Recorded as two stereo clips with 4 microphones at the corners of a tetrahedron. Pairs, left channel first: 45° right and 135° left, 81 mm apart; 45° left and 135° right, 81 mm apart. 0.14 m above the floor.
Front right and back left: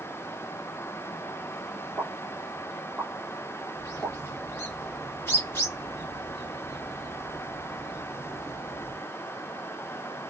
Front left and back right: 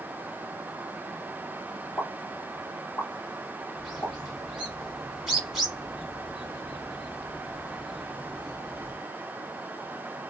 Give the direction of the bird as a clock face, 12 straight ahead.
1 o'clock.